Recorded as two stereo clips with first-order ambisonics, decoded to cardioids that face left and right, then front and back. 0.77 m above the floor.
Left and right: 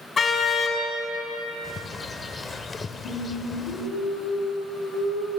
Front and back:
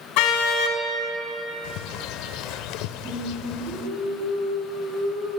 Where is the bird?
15° left, 1.0 m.